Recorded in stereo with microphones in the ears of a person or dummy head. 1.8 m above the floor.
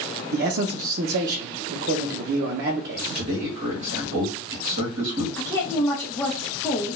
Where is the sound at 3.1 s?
45° right (ahead or behind), 1.1 m.